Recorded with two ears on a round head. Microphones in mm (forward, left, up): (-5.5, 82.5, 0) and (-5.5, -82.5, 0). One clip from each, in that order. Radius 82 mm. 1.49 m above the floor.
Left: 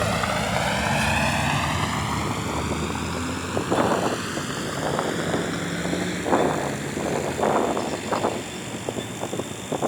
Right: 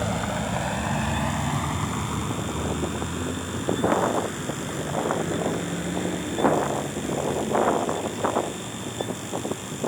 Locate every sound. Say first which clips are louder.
0.0 s a vehicle: left 4 dB; 60° left (ahead or behind); by 9.9 s 80° left